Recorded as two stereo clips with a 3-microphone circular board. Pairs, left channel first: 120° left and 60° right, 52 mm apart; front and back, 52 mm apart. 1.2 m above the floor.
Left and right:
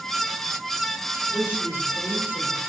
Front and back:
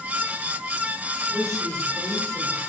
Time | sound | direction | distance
1.3 | a woman speaking | 170° left | 5.5 m